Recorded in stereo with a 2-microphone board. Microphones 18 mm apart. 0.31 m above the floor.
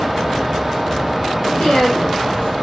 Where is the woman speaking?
65° left (ahead or behind), 3 m.